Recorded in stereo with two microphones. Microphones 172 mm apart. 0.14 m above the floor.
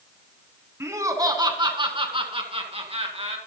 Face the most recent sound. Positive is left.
turn(degrees=-40)  # may be behind; listen again after turning